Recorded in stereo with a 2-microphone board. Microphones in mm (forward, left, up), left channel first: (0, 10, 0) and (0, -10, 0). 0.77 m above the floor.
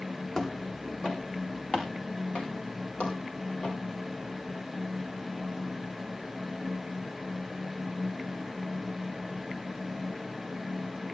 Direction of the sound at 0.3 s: 35° left (ahead or behind).